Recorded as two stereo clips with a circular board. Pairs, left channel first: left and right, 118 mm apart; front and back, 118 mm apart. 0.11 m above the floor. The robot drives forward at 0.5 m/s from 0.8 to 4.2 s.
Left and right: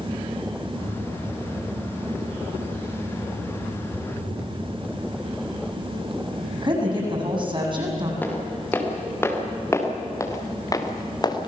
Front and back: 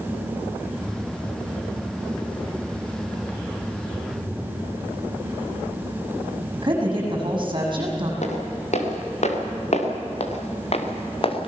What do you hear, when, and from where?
3.9 s a phone buzzing: 65° left, 6.5 m
6.5 s a woman speaking: 135° right, 6 m
8.2 s footsteps: 15° left, 4.5 m; by 11.5 s 40° left, 2.5 m